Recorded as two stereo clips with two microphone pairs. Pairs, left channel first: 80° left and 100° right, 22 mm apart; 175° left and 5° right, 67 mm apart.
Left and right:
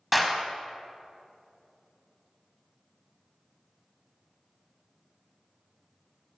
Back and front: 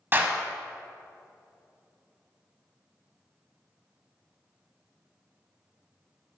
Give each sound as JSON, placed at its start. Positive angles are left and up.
{"t": 0.1, "sound": "a clap", "azimuth_deg": -15, "distance_m": 0.9}